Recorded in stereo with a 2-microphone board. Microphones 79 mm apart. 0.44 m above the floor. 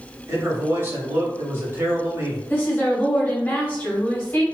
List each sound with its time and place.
0.3 s a man speaking: 35° right (ahead or behind), 1.4 m
2.5 s a woman speaking: 25° left (ahead or behind), 1.4 m